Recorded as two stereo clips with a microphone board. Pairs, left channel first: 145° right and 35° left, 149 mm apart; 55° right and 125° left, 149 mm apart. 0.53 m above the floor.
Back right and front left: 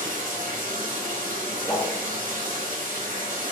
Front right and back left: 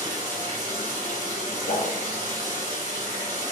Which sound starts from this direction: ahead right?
A whoosh, at 1.7 s.